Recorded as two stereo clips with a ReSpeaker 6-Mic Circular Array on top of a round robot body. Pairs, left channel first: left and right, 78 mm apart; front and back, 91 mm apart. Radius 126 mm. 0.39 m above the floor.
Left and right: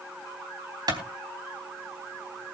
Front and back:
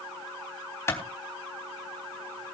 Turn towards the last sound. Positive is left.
turn(degrees=-60)